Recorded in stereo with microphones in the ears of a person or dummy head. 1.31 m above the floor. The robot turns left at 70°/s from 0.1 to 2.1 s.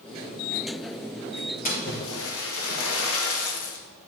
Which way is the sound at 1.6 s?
135° left.